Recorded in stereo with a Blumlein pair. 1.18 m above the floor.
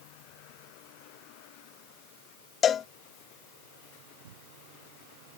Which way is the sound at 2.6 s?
25° left.